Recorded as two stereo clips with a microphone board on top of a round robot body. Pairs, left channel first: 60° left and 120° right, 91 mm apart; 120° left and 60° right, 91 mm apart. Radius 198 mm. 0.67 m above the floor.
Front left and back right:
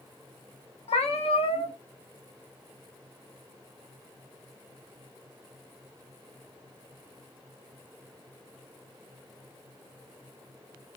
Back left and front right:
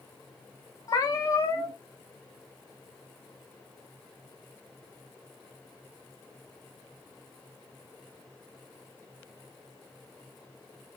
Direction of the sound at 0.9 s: 65° left.